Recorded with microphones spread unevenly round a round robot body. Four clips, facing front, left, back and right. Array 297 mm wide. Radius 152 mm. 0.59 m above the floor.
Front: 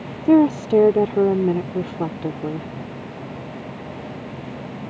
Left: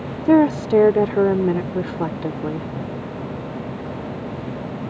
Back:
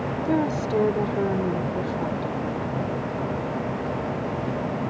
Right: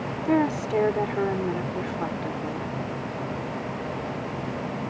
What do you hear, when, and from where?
0.2 s a woman speaking: 45° left